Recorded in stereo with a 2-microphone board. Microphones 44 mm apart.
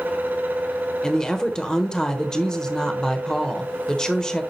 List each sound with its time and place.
1.0 s a woman speaking: 15° left (ahead or behind), 1.1 m